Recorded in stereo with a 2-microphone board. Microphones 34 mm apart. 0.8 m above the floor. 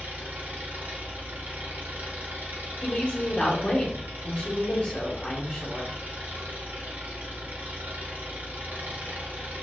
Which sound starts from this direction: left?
A woman speaking, at 2.8 s.